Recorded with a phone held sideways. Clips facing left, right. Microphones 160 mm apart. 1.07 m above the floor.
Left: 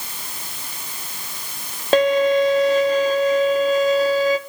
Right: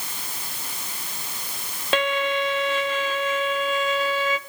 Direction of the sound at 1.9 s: 40° left (ahead or behind).